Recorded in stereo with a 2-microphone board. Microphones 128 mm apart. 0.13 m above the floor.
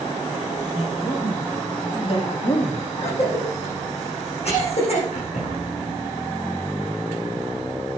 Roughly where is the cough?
Left.